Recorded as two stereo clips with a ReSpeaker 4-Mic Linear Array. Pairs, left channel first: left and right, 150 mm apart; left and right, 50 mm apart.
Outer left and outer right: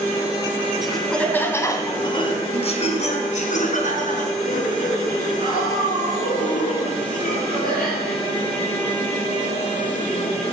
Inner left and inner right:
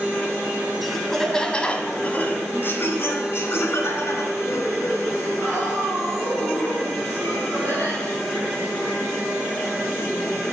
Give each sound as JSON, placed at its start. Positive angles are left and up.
{"t": 0.8, "sound": "laughter", "side_deg": 0, "distance_m": 1.7}